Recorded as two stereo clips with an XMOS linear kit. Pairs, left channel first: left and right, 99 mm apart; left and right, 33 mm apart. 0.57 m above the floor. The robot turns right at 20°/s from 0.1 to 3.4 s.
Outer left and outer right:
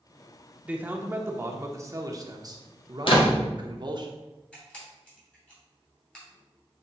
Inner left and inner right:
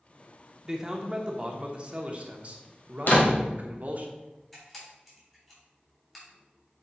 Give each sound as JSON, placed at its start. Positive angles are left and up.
{"t": 0.7, "sound": "a man speaking", "azimuth_deg": -160, "distance_m": 0.9}
{"t": 3.1, "sound": "a door slam", "side_deg": 60, "distance_m": 1.8}
{"t": 4.5, "sound": "a camera shutter", "side_deg": 10, "distance_m": 3.0}